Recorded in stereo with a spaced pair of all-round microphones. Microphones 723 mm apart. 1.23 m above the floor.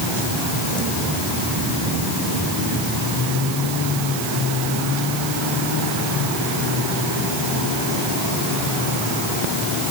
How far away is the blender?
I don't hear a blender.